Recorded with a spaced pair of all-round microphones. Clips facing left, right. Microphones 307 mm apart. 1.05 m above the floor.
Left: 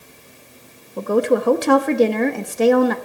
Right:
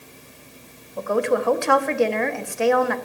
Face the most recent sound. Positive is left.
turn(degrees=45)  # may be behind; listen again after turning